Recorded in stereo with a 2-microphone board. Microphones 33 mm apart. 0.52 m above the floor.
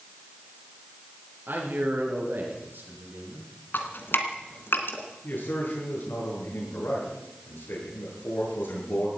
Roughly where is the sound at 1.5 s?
Right.